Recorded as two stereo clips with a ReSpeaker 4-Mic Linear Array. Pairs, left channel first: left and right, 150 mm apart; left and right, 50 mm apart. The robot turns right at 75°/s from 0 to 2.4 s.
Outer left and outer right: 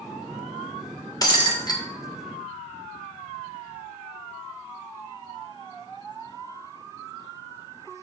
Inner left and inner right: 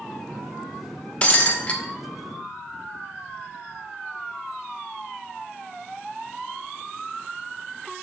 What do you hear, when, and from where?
1.2 s breaking glass: 25° left (ahead or behind), 1.1 m